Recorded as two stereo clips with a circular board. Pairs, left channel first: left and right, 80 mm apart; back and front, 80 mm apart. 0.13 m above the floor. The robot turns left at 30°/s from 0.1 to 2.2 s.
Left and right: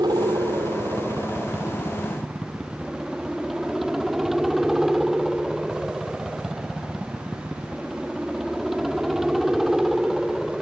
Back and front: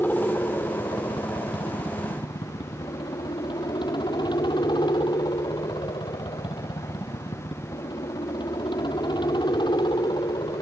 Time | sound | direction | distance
0.0 | a helicopter | 115° right | ?